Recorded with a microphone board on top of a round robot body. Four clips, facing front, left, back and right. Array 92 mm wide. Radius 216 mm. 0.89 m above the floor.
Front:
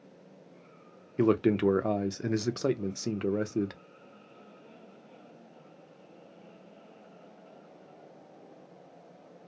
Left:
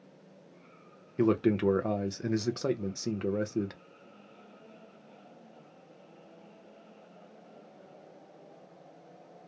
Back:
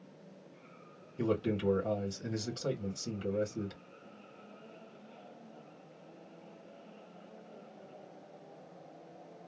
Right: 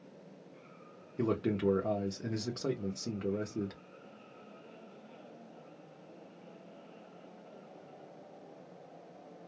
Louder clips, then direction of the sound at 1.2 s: Left 6 dB, front 8 dB; 30° left.